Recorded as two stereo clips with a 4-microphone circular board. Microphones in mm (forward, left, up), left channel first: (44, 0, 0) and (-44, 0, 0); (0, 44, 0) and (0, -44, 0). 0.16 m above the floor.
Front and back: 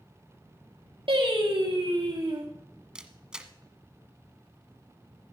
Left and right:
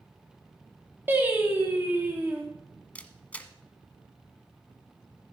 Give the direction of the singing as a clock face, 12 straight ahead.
5 o'clock.